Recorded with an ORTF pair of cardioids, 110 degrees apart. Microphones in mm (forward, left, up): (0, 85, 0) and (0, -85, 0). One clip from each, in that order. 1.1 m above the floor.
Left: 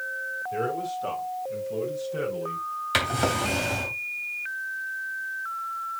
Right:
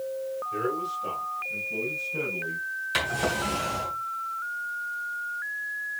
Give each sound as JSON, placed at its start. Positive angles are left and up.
{"t": 0.5, "sound": "a man speaking", "azimuth_deg": 30, "distance_m": 6.5}
{"t": 2.9, "sound": "a drawer", "azimuth_deg": 35, "distance_m": 3.0}